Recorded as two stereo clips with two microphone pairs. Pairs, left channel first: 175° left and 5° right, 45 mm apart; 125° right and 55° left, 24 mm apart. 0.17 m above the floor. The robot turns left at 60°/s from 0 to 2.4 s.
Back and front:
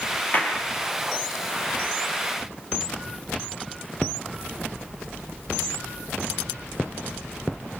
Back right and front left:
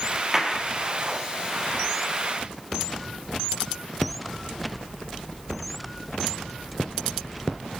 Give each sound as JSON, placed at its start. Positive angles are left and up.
{"t": 0.3, "sound": "a clap", "azimuth_deg": 125, "distance_m": 4.5}